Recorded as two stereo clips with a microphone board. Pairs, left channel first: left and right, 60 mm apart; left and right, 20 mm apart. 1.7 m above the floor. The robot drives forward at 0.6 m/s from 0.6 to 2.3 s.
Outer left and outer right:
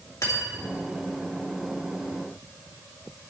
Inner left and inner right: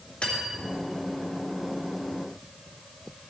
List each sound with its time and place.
0.2 s cutlery clinking: 65° left (ahead or behind), 2.5 m; by 0.7 s 70° left (ahead or behind), 2.5 m